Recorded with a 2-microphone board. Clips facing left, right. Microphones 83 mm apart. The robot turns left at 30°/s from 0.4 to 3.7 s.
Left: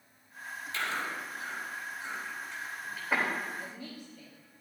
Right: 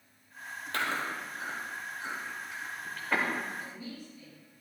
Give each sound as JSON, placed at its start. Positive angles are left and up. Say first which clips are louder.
{"t": 0.7, "sound": "chewing", "louder": "right 2 dB", "side_deg": -60, "distance_m": 3.5}
{"t": 3.6, "sound": "a woman speaking", "louder": "right 1 dB", "side_deg": 75, "distance_m": 6.0}